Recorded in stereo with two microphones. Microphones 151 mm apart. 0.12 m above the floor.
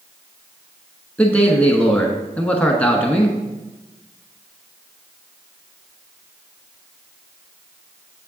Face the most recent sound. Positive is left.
turn(degrees=10)  # may be behind; listen again after turning